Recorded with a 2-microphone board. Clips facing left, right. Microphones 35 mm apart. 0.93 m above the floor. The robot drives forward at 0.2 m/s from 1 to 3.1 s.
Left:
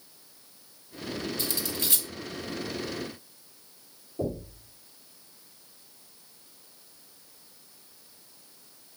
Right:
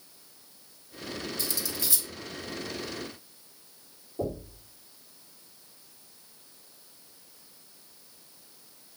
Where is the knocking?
15° right (ahead or behind), 1.7 m.